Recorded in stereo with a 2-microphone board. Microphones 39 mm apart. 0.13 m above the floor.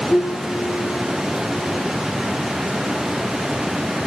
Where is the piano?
50° left (ahead or behind), 5.5 m.